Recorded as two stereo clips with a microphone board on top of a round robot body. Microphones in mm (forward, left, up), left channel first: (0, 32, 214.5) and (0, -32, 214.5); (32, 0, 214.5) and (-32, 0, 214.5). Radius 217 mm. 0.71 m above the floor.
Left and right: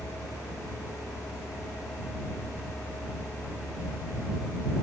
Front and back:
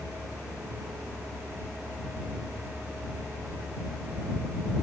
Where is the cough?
No cough in this recording.